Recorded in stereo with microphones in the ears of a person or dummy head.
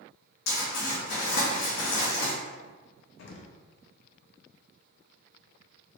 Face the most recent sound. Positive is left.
turn(degrees=65)  # may be behind; listen again after turning